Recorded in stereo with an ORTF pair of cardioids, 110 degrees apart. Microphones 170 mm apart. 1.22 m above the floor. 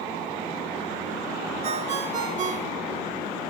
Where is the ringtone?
50° right, 1.8 m.